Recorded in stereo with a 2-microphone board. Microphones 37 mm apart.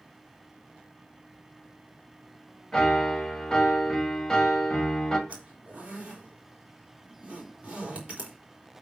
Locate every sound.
2.7 s a piano: 10° left (ahead or behind), 1.7 m
5.3 s a zipper: 30° right (ahead or behind), 4 m